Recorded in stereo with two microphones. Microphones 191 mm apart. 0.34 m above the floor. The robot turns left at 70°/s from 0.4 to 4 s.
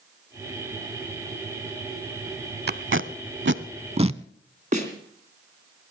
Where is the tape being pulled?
55° right (ahead or behind), 0.5 m; by 4.2 s 30° right (ahead or behind), 0.5 m.